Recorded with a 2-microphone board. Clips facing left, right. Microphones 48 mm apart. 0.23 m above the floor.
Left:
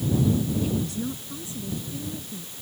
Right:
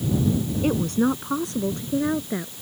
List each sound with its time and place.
0.6 s a woman speaking: 55° right (ahead or behind); by 2.5 s 70° right (ahead or behind)